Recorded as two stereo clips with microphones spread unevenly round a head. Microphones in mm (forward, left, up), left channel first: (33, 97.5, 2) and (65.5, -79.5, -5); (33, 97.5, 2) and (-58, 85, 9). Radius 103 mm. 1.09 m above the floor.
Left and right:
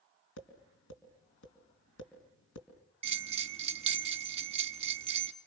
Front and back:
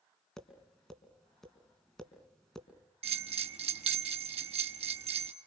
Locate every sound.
0.4 s tapping: 95° left, 4.5 m
3.0 s a bell: 145° right, 1.1 m